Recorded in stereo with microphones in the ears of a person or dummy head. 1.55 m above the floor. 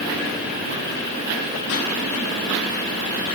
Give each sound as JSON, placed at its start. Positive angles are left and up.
{"t": 1.7, "sound": "a pop", "side_deg": 80, "distance_m": 8.5}